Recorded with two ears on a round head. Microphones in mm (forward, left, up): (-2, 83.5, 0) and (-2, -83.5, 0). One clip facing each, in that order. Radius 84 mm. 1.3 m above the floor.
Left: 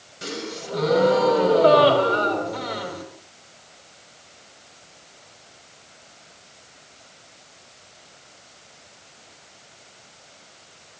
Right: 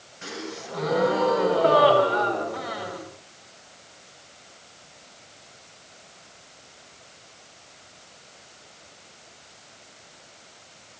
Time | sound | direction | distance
0.2 | a gasp | 45° left (ahead or behind) | 5.5 m